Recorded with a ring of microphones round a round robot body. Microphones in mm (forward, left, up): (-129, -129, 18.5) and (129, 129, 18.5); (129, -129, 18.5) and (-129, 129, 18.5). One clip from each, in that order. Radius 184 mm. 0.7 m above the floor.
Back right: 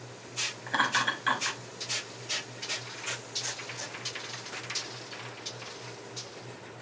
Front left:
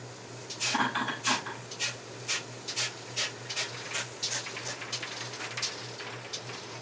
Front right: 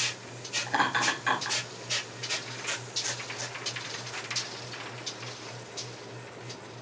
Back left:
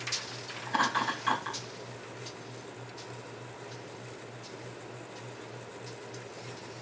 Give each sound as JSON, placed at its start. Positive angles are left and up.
{"t": 0.7, "sound": "laughter", "azimuth_deg": -105, "distance_m": 5.0}